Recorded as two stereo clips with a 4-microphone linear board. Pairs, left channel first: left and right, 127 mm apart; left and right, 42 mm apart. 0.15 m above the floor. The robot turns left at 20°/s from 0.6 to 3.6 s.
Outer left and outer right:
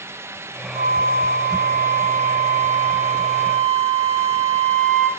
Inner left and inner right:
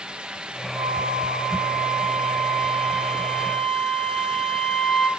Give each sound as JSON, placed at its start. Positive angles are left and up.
{"t": 0.7, "sound": "a flute", "azimuth_deg": -130, "distance_m": 0.8}